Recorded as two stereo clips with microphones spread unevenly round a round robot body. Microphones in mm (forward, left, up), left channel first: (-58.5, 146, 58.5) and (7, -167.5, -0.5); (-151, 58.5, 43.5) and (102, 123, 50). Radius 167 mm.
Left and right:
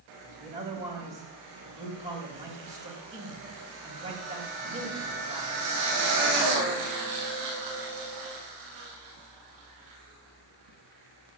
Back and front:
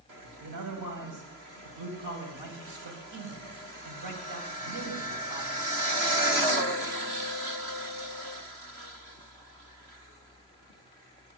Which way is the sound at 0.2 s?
10° right.